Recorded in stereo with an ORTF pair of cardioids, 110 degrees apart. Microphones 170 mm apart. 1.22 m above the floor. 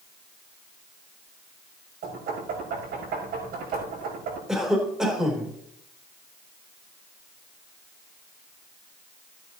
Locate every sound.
2.0 s knocking: 70° right, 6 m
4.5 s a cough: 5° right, 3.5 m